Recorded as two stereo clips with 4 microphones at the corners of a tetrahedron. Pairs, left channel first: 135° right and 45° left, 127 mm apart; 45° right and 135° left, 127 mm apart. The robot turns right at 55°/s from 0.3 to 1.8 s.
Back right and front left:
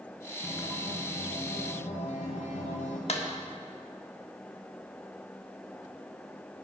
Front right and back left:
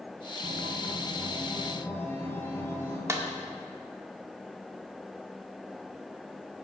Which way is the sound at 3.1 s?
160° right.